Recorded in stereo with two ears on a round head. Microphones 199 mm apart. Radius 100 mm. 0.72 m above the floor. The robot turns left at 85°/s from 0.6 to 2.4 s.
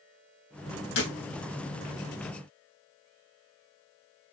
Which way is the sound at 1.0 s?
55° left (ahead or behind).